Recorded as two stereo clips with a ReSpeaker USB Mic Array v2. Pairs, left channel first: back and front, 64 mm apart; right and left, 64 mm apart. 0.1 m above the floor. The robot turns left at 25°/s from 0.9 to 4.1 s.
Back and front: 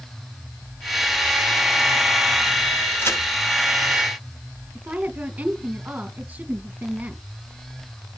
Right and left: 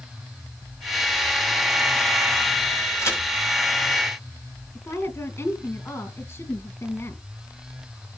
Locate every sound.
3.0 s a crack: 130° right, 6 m; by 3.2 s 135° right, 6 m
4.8 s a woman speaking: 60° right, 1.9 m